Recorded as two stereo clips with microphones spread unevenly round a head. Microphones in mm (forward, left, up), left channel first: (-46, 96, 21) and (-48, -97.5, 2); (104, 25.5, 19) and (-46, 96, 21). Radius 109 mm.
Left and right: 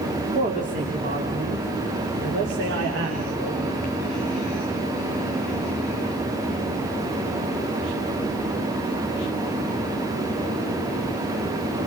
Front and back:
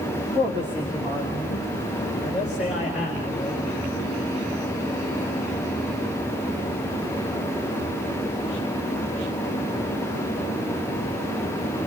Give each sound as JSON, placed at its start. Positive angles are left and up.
{"t": 0.3, "sound": "a woman speaking", "azimuth_deg": -140, "distance_m": 3.0}